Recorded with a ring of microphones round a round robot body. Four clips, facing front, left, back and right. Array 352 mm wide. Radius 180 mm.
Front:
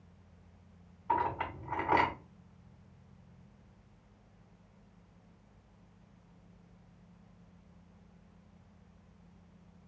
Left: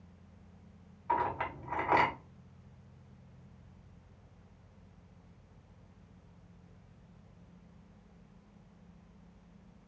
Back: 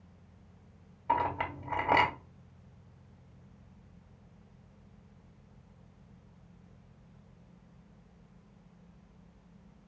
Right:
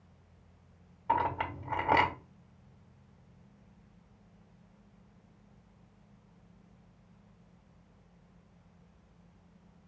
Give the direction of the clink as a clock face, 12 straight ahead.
5 o'clock.